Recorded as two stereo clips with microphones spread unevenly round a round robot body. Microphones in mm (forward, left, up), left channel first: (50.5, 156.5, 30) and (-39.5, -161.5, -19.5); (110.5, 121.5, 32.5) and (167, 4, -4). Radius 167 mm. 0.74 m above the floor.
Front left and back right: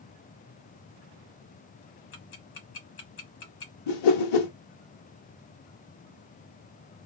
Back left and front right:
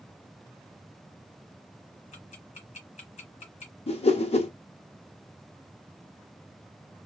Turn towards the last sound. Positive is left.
turn(degrees=75)